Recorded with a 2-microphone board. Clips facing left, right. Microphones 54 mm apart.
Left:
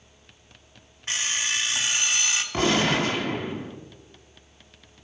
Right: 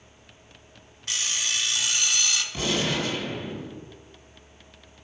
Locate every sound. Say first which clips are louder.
1.1 s an alarm clock: left 2 dB; 30° left (ahead or behind), 1.0 m
2.5 s a gunshot: left 6 dB; 50° left (ahead or behind), 0.9 m